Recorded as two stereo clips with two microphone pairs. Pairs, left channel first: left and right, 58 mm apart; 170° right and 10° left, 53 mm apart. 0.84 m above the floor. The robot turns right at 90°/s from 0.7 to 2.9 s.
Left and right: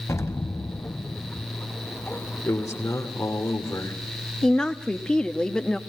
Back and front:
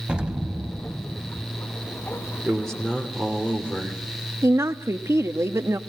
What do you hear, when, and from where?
0.1 s an explosion: 75° left, 1.0 m; by 1.5 s 145° left, 1.0 m
2.4 s a man speaking: 80° left, 2.5 m; by 4.0 s 120° left, 2.5 m
4.4 s a woman speaking: 15° left, 1.2 m